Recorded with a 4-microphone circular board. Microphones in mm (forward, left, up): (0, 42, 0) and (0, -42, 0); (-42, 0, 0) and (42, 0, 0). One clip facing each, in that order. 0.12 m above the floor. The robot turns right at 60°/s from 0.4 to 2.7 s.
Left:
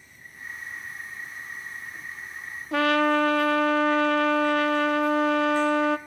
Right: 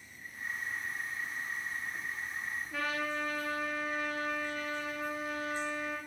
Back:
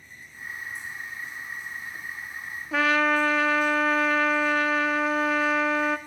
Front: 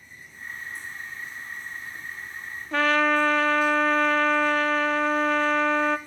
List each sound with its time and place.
2.7 s a trumpet: 95° left, 0.5 m